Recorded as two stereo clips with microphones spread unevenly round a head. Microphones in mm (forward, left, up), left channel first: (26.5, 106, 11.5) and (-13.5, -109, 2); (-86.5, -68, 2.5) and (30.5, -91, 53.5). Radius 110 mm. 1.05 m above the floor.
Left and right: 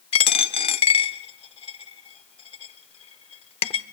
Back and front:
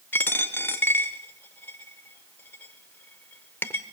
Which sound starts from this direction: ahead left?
A dropped coin, at 0.1 s.